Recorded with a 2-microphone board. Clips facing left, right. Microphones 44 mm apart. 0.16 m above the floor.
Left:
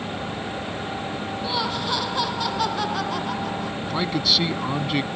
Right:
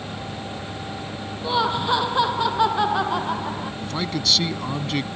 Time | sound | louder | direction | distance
1.4 | laughter | right 6 dB | 25° right (ahead or behind) | ?
3.8 | a man speaking | left 1 dB | 10° left (ahead or behind) | ?